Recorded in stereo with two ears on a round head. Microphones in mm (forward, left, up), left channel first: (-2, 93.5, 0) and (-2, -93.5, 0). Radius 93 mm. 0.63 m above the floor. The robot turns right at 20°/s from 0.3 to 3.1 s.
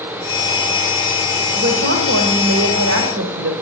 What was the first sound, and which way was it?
A woman speaking, 125° right.